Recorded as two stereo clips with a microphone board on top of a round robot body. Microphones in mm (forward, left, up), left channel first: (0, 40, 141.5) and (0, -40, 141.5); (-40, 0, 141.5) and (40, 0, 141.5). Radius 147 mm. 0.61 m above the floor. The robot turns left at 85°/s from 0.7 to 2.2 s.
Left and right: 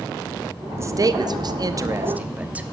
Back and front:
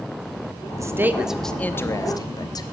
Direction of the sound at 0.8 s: 40° right.